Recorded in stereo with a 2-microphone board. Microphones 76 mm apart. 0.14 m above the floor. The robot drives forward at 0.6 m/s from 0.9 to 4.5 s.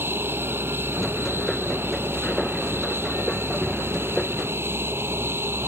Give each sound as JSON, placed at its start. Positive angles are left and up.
{"t": 0.0, "sound": "an aircraft", "side_deg": -30}